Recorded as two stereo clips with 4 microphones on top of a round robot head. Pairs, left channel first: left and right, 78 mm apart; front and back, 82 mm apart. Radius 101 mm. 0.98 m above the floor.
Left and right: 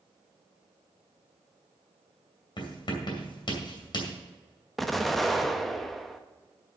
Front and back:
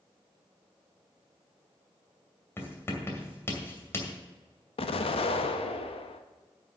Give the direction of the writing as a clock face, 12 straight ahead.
10 o'clock.